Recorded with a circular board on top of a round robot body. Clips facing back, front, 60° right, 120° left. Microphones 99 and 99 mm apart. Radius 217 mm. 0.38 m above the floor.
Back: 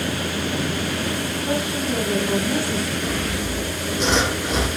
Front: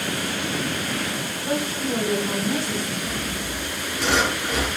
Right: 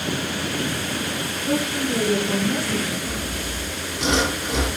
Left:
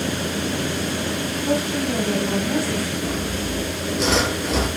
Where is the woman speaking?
100° left, 4 m; by 2.9 s 80° left, 4 m.